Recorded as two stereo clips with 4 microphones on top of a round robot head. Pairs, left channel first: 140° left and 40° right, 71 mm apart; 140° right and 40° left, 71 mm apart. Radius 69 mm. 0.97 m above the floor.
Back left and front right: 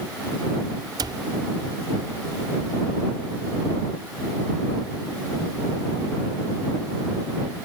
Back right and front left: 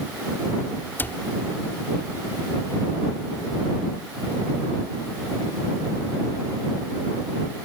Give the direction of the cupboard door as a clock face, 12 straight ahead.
2 o'clock.